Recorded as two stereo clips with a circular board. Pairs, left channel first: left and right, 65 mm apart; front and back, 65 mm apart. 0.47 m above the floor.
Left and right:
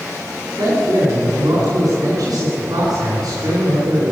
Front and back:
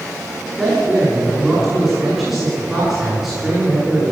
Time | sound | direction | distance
0.6 | a man speaking | 100° right | 5.5 m